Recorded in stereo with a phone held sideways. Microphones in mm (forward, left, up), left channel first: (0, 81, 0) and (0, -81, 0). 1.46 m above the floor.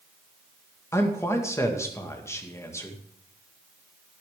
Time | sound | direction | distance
0.9 | a man speaking | 15° left (ahead or behind) | 1.8 m